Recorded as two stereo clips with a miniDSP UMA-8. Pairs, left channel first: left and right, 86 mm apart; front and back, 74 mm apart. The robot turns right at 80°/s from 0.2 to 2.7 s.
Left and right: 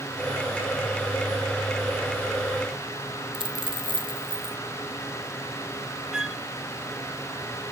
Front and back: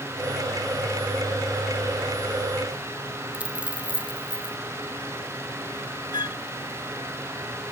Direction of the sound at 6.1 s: 10° right.